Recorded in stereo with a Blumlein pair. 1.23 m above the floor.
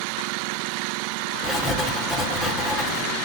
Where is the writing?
10° left, 1.1 m.